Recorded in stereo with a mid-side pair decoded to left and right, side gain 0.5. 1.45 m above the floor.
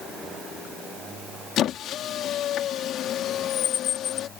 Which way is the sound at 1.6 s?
65° left.